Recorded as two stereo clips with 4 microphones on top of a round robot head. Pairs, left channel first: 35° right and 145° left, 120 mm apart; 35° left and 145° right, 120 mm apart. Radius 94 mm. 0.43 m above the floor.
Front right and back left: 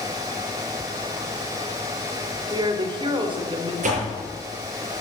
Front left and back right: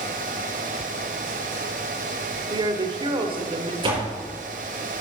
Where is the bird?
No bird in this recording.